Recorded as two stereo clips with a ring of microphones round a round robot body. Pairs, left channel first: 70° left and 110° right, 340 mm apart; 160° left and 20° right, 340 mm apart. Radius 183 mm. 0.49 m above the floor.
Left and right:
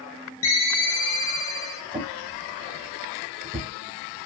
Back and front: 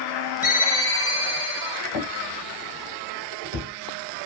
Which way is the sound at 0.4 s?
75° left.